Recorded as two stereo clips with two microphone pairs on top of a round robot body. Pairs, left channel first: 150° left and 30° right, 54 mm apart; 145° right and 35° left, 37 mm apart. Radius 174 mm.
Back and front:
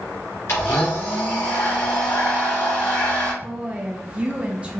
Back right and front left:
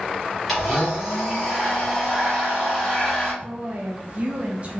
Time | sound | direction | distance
0.5 | a blender | 125° left | 0.8 m
3.4 | a woman speaking | 5° left | 0.9 m